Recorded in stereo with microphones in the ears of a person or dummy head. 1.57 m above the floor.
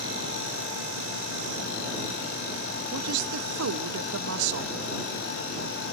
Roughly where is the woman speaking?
Right.